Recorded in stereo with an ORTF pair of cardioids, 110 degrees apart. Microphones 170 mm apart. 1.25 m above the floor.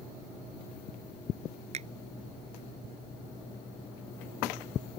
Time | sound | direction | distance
1.7 | a finger snap | 40° right | ?